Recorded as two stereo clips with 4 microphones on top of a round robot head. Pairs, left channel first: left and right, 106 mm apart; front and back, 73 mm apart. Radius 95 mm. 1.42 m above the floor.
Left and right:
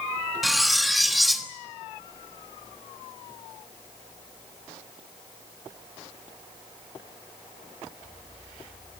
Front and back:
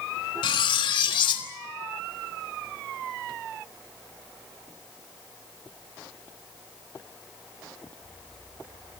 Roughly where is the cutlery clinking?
Ahead.